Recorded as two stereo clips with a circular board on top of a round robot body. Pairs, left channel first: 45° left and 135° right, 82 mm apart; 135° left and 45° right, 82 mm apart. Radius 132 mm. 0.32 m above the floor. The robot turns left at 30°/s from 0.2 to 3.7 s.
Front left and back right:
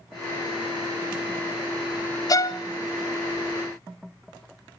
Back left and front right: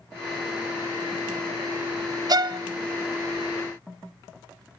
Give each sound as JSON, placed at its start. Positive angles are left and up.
{"t": 2.3, "sound": "a violin", "azimuth_deg": 0, "distance_m": 0.6}